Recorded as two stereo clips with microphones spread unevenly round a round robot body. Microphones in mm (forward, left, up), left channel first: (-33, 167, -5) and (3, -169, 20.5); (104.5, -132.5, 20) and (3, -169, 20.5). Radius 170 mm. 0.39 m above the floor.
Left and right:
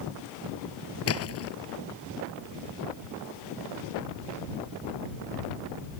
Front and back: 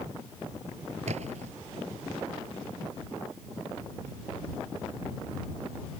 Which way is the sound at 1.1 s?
145° left.